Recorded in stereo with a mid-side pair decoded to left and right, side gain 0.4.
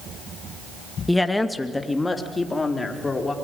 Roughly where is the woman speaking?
Ahead.